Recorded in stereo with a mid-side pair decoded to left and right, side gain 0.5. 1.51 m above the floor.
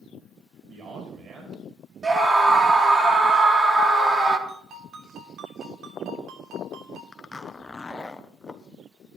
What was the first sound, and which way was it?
A man speaking, 55° right.